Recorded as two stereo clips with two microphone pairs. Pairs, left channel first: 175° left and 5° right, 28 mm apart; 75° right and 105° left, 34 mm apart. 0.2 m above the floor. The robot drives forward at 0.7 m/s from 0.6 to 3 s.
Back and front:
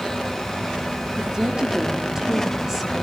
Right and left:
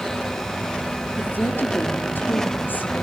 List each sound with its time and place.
1.2 s a woman speaking: 65° right, 4 m; by 3.0 s 85° right, 3.5 m